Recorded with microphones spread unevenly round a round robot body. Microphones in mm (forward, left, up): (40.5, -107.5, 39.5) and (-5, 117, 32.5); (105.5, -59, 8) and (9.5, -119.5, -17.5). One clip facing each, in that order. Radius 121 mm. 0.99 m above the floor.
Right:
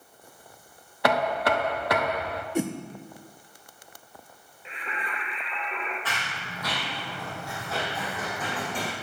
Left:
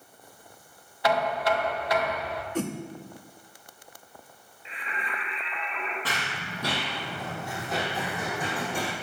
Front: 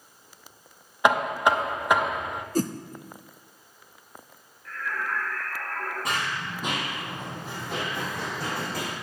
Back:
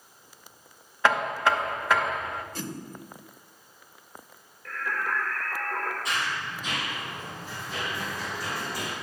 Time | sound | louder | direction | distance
1.0 | knocking | right 1 dB, front 2 dB | 40° right | 0.7 m
2.5 | a whoosh | right 3 dB, front 10 dB | straight ahead | 0.6 m
4.7 | singing | right 1 dB, back 1 dB | 125° right | 3.5 m
6.0 | running footsteps | left 2 dB, front 1 dB | 50° left | 1.9 m